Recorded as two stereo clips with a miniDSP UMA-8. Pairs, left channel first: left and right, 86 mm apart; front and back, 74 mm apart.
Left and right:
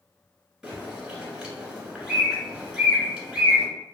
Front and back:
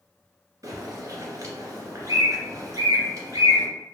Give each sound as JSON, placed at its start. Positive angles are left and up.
{"t": 0.6, "sound": "a bird", "azimuth_deg": -170, "distance_m": 1.5}